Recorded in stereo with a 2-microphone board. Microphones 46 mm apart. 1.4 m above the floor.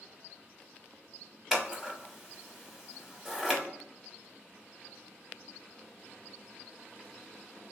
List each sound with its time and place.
1.5 s scissors: 5° right (ahead or behind), 0.9 m